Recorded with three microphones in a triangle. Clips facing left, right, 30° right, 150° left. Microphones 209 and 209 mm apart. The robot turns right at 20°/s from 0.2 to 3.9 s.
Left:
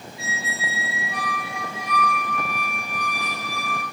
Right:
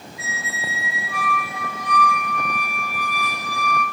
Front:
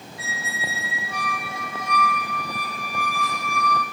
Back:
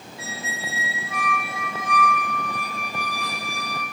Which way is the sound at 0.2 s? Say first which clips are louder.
Left 1 dB, back 1 dB; 135° left.